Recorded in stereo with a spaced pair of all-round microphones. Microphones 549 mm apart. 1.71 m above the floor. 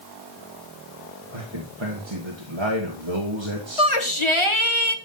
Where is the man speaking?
55° right (ahead or behind), 1.7 m.